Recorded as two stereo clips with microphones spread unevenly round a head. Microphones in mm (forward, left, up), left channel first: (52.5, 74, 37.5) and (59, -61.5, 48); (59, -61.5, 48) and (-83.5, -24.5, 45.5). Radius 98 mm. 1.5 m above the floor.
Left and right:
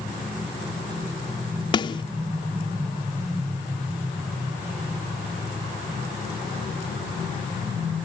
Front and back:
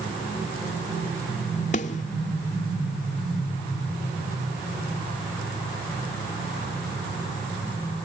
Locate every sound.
1.7 s a snare drum: 40° left